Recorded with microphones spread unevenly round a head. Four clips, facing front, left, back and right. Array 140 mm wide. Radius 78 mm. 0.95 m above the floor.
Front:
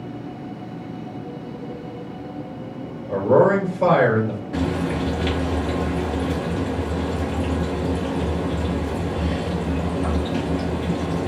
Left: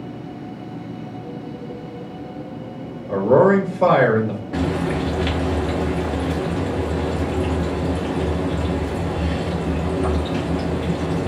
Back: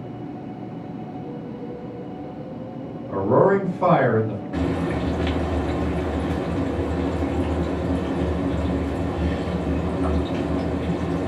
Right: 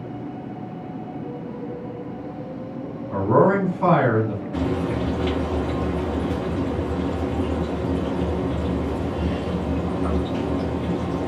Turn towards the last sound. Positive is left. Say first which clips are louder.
# left 2 dB, even
turn(degrees=100)